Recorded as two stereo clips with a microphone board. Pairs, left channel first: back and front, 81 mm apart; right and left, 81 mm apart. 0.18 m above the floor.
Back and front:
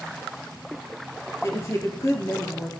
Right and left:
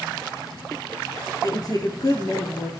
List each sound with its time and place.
1.4 s a woman speaking: 125° right, 4 m